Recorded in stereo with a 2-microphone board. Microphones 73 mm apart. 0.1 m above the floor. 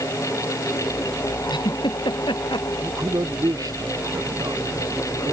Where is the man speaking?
55° right (ahead or behind).